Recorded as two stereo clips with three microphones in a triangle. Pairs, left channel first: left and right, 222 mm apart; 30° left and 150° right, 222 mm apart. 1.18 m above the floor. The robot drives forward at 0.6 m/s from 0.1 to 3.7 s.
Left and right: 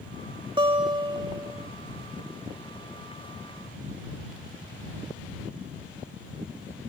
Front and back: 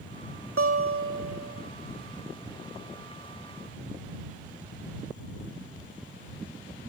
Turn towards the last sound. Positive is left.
turn(degrees=-170)